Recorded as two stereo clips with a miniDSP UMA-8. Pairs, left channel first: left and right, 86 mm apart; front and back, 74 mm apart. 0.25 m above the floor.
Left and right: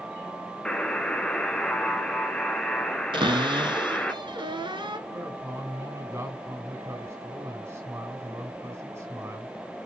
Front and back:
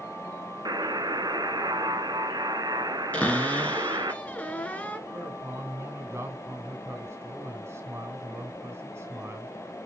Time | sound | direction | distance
0.7 | a buzzer | 170° left | 1.0 m
3.1 | a cupboard door | 70° right | 1.5 m
5.1 | a man speaking | 140° right | 2.5 m